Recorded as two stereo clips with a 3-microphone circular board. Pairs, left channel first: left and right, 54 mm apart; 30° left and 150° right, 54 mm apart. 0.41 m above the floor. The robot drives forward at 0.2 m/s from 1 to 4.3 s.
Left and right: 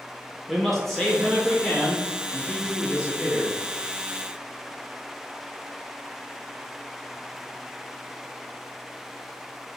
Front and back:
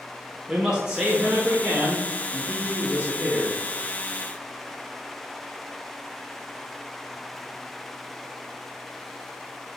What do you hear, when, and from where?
0.5 s a man speaking: 165° left, 0.8 m; by 3.5 s 175° left, 1.1 m